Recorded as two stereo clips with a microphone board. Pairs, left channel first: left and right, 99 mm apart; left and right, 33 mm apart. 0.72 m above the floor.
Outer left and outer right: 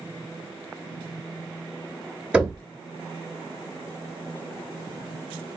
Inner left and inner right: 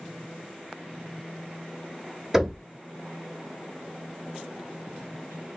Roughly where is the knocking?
Centre.